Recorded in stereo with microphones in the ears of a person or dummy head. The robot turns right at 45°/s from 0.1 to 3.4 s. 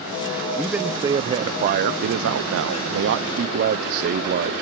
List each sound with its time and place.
0.6 s a man speaking: 175° left, 0.7 m; by 4.5 s 55° right, 0.7 m